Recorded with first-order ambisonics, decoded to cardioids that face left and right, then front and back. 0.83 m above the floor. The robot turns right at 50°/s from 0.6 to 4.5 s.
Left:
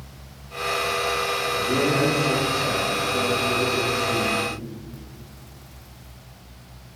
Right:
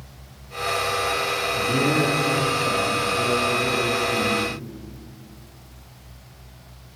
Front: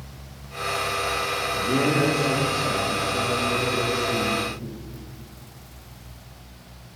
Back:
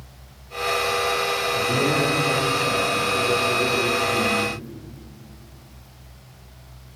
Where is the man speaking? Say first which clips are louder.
Even, even; 5° right, 1.5 m; by 4.6 s 145° left, 1.5 m.